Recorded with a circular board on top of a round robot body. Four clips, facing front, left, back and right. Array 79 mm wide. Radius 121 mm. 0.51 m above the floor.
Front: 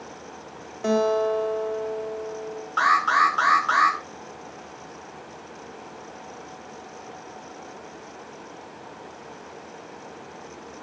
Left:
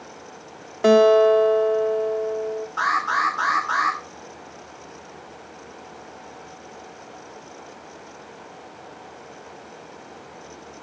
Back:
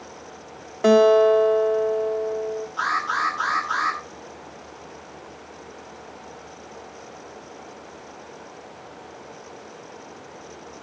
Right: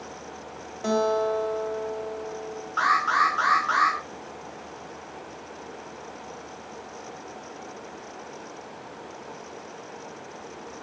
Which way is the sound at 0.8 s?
135° left.